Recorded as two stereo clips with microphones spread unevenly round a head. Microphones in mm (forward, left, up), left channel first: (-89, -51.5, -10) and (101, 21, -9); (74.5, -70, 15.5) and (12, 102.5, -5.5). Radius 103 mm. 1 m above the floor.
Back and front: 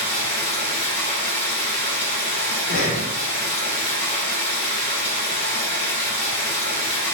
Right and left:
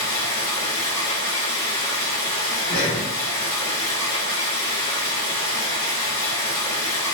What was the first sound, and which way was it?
Running water, 115° right.